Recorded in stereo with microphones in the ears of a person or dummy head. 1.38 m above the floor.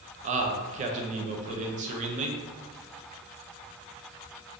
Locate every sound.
0.2 s a man speaking: 40° right (ahead or behind), 0.5 m